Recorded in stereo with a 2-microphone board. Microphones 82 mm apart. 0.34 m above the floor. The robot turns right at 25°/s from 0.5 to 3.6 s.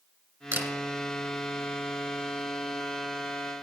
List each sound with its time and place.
0.5 s a camera shutter: 35° right (ahead or behind), 1.7 m; by 0.7 s 30° right (ahead or behind), 1.7 m